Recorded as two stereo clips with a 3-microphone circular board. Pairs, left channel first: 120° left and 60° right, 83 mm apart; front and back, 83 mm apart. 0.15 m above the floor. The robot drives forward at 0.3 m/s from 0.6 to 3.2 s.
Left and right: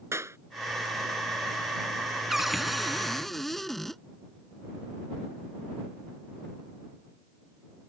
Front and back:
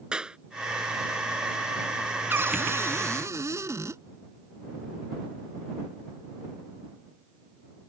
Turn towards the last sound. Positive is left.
turn(degrees=-155)